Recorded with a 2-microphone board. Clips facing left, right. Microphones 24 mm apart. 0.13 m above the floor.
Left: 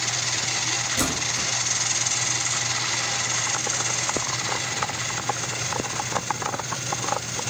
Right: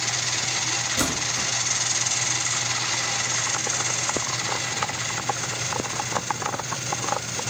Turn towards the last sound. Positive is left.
turn(degrees=-20)  # may be behind; listen again after turning